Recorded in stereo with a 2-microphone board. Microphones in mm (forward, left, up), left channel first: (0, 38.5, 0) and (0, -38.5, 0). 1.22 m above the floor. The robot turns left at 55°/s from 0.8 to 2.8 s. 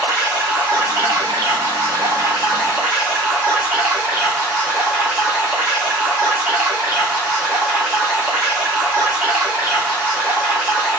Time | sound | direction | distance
0.0 | running water | 45° right | 1.1 m